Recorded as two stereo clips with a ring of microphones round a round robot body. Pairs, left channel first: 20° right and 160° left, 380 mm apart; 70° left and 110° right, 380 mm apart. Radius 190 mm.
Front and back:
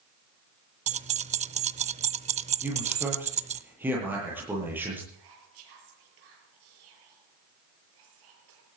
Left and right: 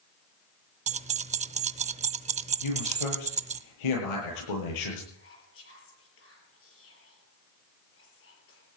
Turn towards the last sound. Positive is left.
turn(degrees=125)